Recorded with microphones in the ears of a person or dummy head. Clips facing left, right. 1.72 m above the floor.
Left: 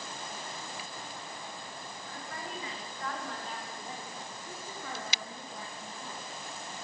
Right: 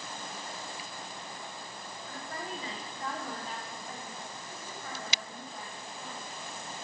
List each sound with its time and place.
2.1 s a woman speaking: 40° right (ahead or behind), 1.9 m; by 6.2 s 80° left, 2 m